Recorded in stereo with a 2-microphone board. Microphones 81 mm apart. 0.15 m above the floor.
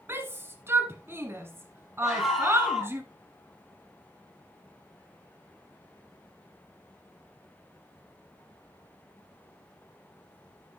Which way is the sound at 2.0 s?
5° right (ahead or behind).